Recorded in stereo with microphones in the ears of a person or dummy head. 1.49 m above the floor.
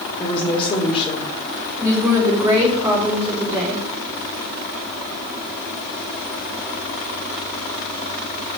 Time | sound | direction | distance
0.2 | a woman speaking | 35° left (ahead or behind) | 2 m
1.8 | a woman speaking | 25° right (ahead or behind) | 4 m